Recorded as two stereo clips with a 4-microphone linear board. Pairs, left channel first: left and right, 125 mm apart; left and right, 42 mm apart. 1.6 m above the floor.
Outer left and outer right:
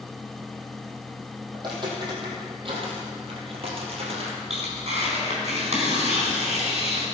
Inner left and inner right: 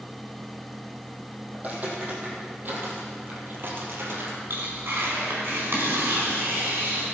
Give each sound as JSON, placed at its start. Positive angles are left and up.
{"t": 1.5, "sound": "footsteps", "side_deg": -35, "distance_m": 4.0}
{"t": 4.5, "sound": "tearing paper", "side_deg": -60, "distance_m": 4.5}